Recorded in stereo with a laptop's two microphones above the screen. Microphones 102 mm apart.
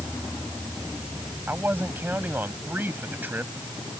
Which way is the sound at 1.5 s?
20° right (ahead or behind).